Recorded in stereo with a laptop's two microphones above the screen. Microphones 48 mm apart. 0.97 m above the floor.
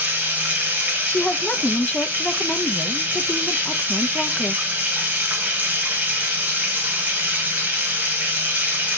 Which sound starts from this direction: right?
Running water, at 0.0 s.